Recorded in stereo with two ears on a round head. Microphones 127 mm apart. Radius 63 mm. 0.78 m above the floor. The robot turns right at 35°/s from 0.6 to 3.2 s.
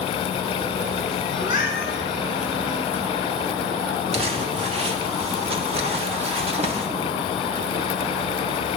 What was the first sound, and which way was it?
A cat meowing, 25° right (ahead or behind).